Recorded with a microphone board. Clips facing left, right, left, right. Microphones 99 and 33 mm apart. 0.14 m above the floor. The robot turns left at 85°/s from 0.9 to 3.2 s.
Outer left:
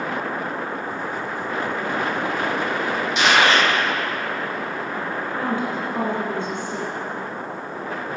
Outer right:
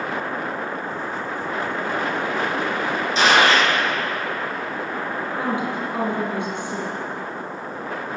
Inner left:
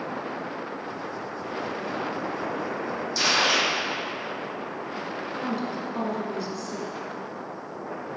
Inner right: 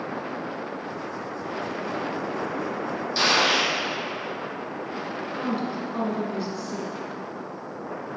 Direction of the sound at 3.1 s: 35° right (ahead or behind).